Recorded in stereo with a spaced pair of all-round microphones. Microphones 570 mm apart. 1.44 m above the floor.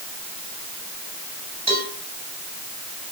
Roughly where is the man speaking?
I don't hear a man speaking.